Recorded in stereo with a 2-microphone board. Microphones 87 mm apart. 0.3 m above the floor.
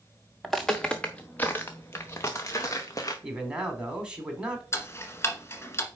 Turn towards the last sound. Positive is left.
turn(degrees=30)  # may be behind; listen again after turning